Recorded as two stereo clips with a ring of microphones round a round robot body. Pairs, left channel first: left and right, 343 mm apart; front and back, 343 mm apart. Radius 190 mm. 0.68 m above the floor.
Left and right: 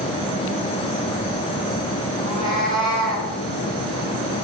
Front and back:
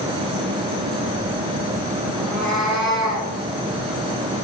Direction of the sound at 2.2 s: 125° left.